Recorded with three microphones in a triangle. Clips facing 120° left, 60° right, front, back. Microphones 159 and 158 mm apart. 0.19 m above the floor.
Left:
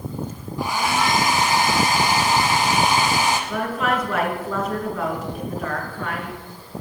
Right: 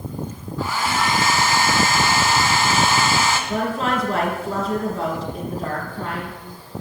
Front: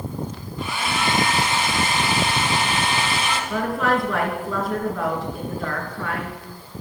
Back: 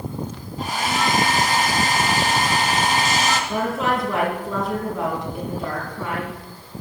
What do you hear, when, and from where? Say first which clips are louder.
0.6 s a hair dryer: left 1 dB, back 2 dB; 175° right, 1.1 m
3.5 s a woman speaking: right 1 dB, even; 115° right, 3 m